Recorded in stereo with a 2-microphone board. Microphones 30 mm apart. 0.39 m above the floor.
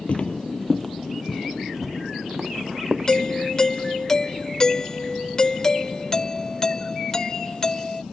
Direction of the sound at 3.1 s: 20° left (ahead or behind).